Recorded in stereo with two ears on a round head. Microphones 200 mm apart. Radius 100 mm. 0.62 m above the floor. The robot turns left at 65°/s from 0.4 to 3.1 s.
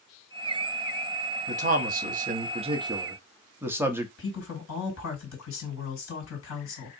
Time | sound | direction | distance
1.5 | a man speaking | 55° right | 0.8 m
4.2 | a woman speaking | 65° left (ahead or behind) | 2.5 m